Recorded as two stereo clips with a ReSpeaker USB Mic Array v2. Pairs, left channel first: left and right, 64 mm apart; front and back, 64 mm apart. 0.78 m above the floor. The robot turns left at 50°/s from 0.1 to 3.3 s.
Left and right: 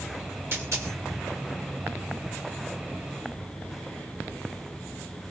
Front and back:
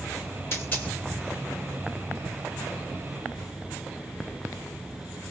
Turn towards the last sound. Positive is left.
turn(degrees=180)